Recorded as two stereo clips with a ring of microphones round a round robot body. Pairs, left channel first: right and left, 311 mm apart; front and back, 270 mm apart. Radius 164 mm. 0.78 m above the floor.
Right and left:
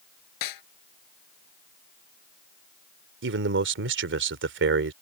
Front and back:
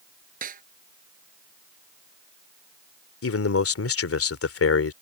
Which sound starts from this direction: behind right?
A snare drum, at 0.4 s.